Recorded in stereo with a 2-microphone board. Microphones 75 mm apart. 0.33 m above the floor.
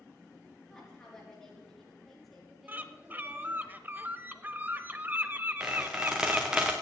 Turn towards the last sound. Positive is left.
turn(degrees=-15)  # may be behind; listen again after turning